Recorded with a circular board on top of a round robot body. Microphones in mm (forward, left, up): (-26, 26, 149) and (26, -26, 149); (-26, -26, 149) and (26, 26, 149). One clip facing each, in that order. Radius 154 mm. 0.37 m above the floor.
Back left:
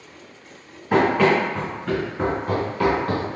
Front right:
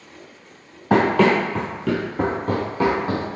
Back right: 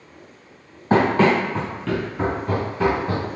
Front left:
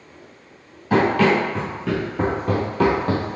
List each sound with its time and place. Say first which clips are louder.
0.9 s running footsteps: front right 1 dB, even; 80° right, 0.9 m; by 3.4 s 35° left, 1.1 m